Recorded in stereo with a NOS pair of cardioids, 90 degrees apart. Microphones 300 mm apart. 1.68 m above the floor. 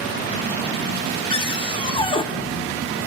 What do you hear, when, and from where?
1.3 s a cupboard door: 20° left, 0.9 m